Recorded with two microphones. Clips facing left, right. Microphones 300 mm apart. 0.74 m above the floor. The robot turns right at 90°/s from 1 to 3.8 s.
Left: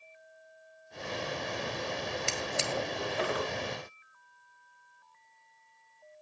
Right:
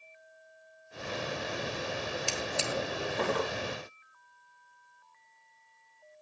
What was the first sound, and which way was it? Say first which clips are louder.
A drawer: right 1 dB; 25° left (ahead or behind).